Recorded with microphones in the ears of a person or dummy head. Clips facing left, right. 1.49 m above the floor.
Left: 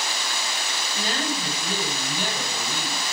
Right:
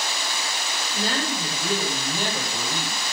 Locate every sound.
0.9 s a woman speaking: 45° right (ahead or behind), 6 m